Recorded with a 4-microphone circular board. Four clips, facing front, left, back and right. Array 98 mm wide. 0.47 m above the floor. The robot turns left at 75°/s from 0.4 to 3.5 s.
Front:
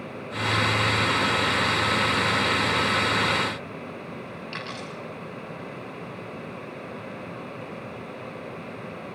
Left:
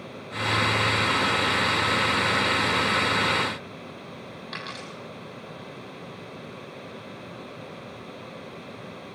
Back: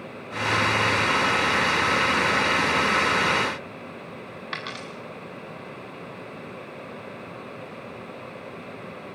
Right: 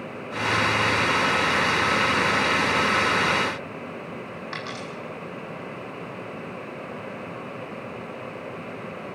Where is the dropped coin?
165° right, 7 m.